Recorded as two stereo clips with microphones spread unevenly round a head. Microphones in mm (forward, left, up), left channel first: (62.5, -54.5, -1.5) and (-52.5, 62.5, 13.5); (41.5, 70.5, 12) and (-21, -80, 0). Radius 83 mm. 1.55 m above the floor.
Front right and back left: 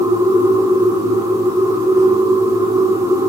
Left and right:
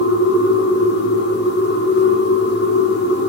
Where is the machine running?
65° left, 2 m.